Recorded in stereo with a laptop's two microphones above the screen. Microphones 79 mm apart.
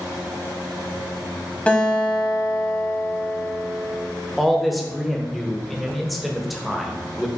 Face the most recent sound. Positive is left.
turn(degrees=0)  # may be behind; listen again after turning